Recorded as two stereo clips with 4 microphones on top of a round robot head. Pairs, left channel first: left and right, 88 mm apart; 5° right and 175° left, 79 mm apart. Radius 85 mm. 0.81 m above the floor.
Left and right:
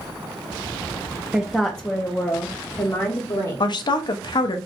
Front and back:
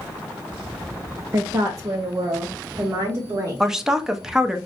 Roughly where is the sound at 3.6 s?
Left.